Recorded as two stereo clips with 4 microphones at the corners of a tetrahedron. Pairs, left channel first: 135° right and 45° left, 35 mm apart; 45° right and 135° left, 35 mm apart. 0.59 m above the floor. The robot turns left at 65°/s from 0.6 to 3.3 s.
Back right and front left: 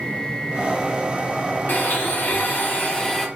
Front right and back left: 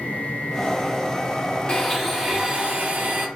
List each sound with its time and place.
1.7 s a blender: 110° right, 0.7 m; by 3.3 s 145° left, 0.7 m